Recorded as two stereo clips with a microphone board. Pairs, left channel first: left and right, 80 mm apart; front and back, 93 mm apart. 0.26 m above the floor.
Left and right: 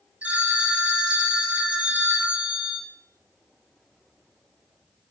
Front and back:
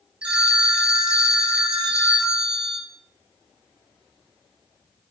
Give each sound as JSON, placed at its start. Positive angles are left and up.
{"t": 0.2, "sound": "a phone ringing", "azimuth_deg": -125, "distance_m": 0.6}